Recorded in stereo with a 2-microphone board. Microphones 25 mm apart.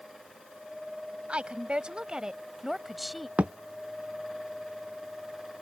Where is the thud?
60° right (ahead or behind).